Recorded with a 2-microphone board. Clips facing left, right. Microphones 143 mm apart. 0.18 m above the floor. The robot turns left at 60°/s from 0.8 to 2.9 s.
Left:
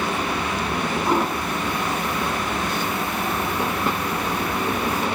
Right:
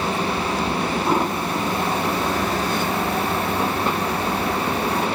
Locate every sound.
1.1 s a toilet flushing: 5° right (ahead or behind), 2.5 m; by 5.1 s 65° right (ahead or behind), 2.5 m